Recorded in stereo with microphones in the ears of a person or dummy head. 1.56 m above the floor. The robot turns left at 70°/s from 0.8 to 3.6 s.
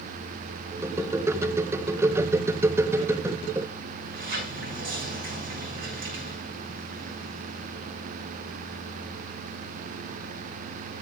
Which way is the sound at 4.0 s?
70° right (ahead or behind).